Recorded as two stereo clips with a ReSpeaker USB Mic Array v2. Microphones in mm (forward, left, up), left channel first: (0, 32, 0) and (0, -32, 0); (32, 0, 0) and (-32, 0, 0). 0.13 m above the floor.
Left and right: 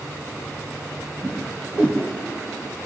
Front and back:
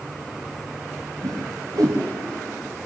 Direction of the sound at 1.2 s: 150° right.